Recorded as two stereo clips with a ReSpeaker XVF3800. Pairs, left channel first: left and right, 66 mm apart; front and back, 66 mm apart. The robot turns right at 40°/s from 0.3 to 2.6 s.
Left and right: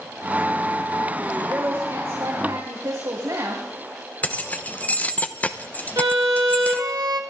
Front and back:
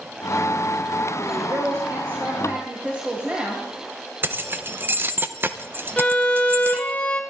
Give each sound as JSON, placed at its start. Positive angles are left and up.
{"t": 1.3, "sound": "a woman speaking", "azimuth_deg": -165, "distance_m": 3.0}
{"t": 4.2, "sound": "keys jangling", "azimuth_deg": 145, "distance_m": 0.8}
{"t": 6.0, "sound": "a violin", "azimuth_deg": -75, "distance_m": 1.5}